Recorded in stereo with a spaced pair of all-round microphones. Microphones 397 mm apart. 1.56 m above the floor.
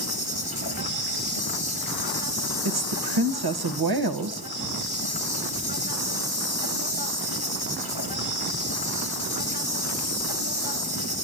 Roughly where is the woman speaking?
Right.